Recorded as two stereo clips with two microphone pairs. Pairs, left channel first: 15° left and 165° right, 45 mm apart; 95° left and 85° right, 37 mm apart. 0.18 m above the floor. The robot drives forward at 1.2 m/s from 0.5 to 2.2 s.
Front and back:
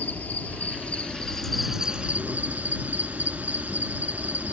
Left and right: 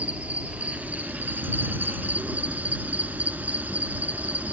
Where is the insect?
30° right, 1.9 m; by 4.5 s 120° right, 1.1 m.